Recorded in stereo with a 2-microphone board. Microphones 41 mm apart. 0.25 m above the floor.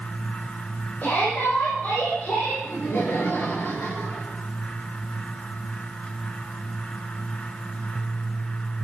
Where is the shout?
50° left (ahead or behind), 8 m; by 2.5 s 55° left (ahead or behind), 9 m.